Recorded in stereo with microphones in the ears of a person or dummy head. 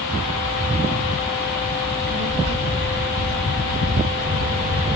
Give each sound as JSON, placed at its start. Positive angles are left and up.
{"t": 1.8, "sound": "a child speaking", "side_deg": -55, "distance_m": 1.9}